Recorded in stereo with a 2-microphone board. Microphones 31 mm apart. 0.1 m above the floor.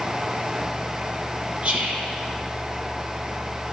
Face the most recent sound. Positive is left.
turn(degrees=-40)  # may be behind; listen again after turning